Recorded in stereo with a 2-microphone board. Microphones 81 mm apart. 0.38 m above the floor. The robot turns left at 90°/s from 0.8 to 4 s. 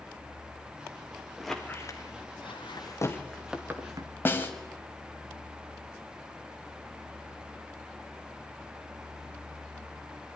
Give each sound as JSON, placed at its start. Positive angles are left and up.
{"t": 1.4, "sound": "a squeak", "side_deg": -5, "distance_m": 2.5}
{"t": 4.2, "sound": "a snare drum", "side_deg": 25, "distance_m": 2.0}